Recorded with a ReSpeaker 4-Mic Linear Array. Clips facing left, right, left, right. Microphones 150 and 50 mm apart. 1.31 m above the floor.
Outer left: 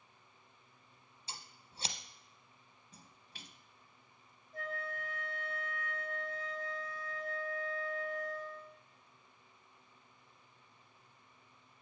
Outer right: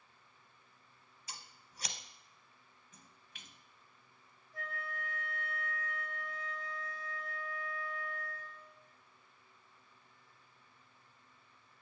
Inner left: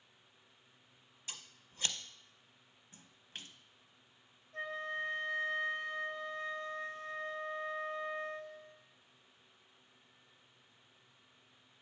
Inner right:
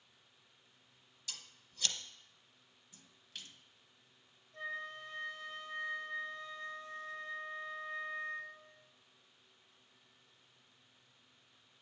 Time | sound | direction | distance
1.3 | scissors | 30° left (ahead or behind) | 0.6 m
2.9 | a splash | 35° left (ahead or behind) | 0.6 m
4.5 | a flute | 50° left (ahead or behind) | 2 m